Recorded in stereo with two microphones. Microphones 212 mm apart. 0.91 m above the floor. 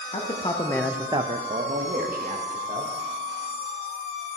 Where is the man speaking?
30° left (ahead or behind), 1.0 m; by 2.9 s 45° right (ahead or behind), 2 m.